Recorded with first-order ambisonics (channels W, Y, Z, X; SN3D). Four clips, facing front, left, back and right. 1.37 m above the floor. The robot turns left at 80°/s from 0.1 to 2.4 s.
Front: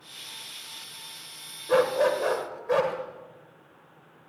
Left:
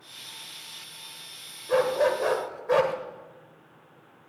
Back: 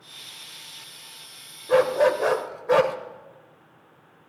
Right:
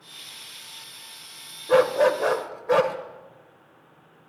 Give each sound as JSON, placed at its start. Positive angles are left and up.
{"t": 1.7, "sound": "a dog barking", "azimuth_deg": -100, "distance_m": 1.1}